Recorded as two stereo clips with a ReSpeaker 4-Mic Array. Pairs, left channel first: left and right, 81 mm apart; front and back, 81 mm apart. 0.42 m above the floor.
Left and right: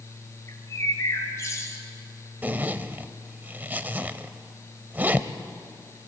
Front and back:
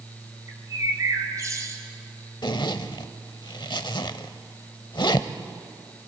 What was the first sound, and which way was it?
A bird, 135° left.